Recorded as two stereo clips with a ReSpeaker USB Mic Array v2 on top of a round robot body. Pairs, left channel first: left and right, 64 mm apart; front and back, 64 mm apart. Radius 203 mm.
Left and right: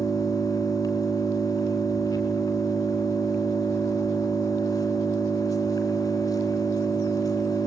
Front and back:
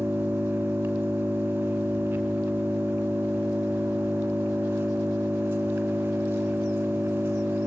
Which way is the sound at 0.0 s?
115° left.